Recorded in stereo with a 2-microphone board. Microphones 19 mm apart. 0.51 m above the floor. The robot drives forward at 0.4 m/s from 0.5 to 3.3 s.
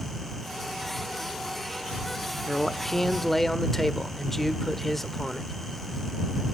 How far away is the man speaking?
About 1.0 m.